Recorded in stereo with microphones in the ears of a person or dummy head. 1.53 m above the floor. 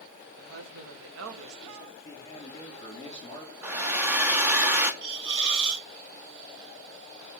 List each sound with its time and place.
0.4 s a woman speaking: 85° right, 1.5 m
1.9 s a man speaking: 20° left (ahead or behind), 4 m
3.6 s a hair dryer: 10° right (ahead or behind), 0.7 m
5.0 s a hiss: 70° right (ahead or behind), 1.9 m